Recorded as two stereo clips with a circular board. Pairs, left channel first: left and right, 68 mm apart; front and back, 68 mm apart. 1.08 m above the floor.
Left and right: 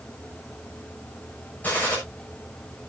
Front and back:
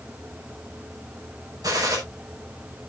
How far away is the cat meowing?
I don't hear a cat meowing.